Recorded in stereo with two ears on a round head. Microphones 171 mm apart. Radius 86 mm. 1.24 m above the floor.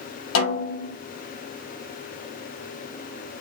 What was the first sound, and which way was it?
A snare drum, 75° left (ahead or behind).